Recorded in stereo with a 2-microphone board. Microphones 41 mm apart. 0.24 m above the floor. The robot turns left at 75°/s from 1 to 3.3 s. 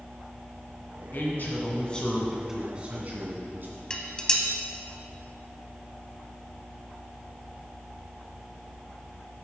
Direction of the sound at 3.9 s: 20° left (ahead or behind).